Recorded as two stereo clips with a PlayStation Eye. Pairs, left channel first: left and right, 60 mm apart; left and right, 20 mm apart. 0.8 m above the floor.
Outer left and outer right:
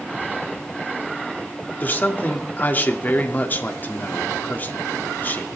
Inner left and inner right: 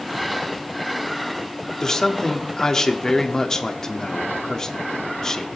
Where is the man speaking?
35° left (ahead or behind), 1.6 m.